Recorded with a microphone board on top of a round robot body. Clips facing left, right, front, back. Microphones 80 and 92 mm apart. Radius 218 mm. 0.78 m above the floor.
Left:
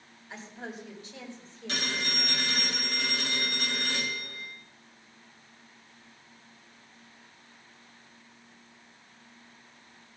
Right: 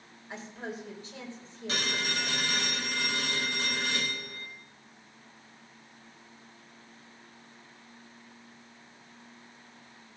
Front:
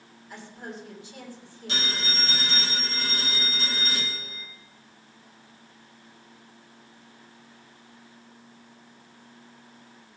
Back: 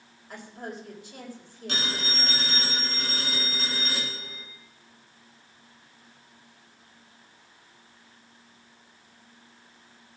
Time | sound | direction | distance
0.3 | a woman speaking | 140° right | 4.5 m
1.7 | a phone ringing | 145° right | 9 m